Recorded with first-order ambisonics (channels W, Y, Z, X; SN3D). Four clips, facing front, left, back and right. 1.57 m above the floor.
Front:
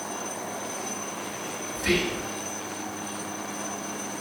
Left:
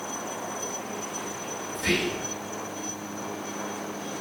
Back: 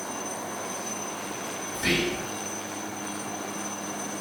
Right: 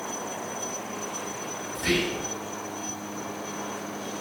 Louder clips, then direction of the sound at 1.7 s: Even, even; 175° left.